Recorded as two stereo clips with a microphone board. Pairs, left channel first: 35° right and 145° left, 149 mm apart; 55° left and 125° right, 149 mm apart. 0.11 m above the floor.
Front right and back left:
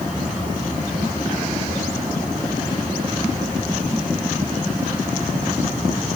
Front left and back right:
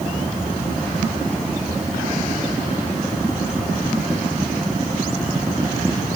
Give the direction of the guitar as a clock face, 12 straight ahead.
No guitar in this recording.